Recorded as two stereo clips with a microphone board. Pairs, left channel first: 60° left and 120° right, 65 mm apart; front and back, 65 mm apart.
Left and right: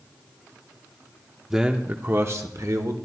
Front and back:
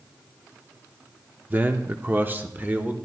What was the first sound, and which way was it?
A man speaking, 165° left.